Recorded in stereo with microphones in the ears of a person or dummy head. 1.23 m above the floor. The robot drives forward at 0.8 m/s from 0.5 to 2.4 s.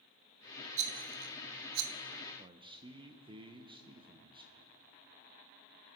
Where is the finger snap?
I don't hear a finger snap.